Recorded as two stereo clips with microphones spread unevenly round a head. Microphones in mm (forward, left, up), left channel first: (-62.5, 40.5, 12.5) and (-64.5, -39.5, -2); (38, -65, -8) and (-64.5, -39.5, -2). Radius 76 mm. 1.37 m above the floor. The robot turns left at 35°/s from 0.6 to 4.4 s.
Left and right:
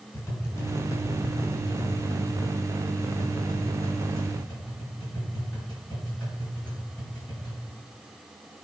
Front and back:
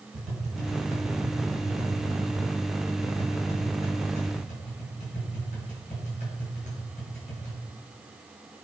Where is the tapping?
140° left, 5 m; by 7.6 s 10° left, 5 m.